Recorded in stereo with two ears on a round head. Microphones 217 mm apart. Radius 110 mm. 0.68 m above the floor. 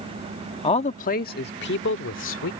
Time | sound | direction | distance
0.6 | a man speaking | 20° left (ahead or behind) | ?